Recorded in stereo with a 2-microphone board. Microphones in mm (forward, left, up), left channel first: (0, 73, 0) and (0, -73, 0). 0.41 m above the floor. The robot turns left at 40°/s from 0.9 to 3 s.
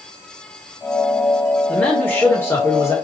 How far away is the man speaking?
About 1.4 m.